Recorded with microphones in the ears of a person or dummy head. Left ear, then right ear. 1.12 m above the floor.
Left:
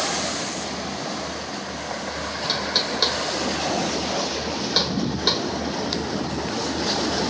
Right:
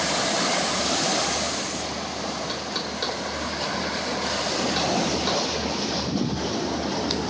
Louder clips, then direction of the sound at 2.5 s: Left 6 dB; 35° left (ahead or behind).